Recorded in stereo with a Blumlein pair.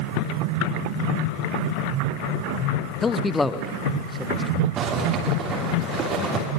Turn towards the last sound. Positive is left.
turn(degrees=-30)